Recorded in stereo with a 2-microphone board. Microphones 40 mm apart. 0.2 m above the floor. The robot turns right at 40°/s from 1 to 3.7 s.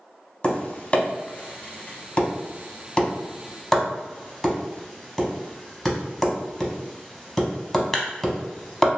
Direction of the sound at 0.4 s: 30° left (ahead or behind).